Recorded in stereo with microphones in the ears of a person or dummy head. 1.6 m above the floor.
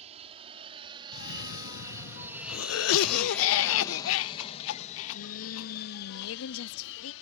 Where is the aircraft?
35° right (ahead or behind); by 7.2 s 70° left (ahead or behind).